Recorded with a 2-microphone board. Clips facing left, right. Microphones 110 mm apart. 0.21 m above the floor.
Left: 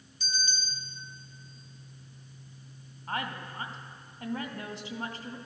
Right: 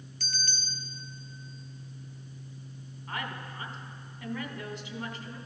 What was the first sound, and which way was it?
A bell, 70° right (ahead or behind).